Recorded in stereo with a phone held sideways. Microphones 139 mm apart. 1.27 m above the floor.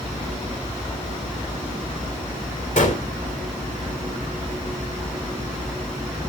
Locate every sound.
2.8 s a gunshot: 70° left (ahead or behind), 3 m